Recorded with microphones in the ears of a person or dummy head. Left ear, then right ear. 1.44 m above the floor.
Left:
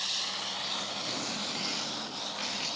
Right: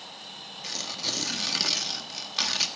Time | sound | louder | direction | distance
0.6 | tearing paper | right 2 dB | 65° right (ahead or behind) | 1.5 m